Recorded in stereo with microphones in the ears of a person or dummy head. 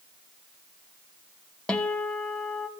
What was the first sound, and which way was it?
A guitar, 5° left (ahead or behind).